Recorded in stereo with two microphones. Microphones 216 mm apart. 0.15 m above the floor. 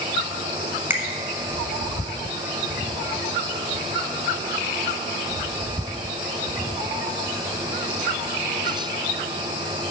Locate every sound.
0.9 s a finger snap: 10° right (ahead or behind), 1.0 m